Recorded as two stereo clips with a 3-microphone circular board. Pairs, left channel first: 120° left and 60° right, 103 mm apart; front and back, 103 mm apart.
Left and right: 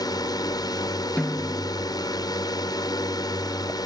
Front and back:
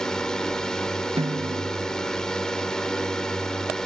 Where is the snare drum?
160° right.